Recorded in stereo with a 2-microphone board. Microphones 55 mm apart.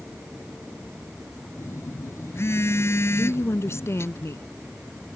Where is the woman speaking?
55° left (ahead or behind).